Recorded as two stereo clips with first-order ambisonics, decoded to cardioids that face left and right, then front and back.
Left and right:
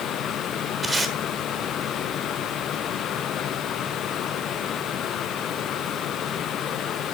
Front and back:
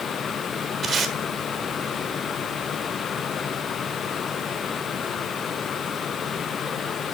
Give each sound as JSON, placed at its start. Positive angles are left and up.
{"t": 0.8, "sound": "tape being pulled", "azimuth_deg": -155, "distance_m": 1.4}